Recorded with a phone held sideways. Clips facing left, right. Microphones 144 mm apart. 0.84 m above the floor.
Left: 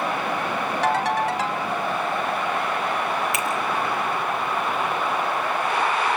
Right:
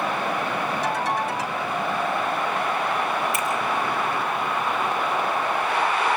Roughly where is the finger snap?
Left.